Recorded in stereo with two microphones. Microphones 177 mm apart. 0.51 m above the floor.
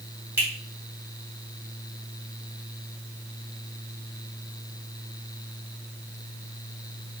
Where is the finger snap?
15° right (ahead or behind), 2 m.